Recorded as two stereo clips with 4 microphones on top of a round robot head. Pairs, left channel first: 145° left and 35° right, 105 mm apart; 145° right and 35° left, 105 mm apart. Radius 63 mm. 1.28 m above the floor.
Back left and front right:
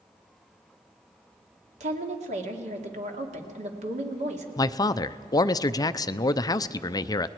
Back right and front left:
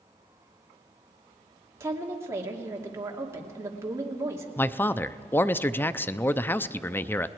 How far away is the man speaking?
About 0.6 m.